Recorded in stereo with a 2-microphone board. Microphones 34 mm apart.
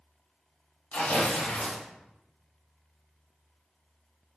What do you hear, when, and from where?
0.9 s tearing paper: 75° left (ahead or behind), 1.4 m